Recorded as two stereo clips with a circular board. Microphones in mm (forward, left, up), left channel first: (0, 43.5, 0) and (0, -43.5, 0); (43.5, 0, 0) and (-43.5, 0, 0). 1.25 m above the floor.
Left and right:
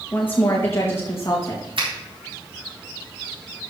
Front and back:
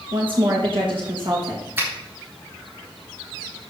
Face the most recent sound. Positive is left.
turn(degrees=-115)